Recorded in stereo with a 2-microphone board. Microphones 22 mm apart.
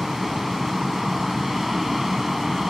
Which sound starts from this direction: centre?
An aircraft, at 0.0 s.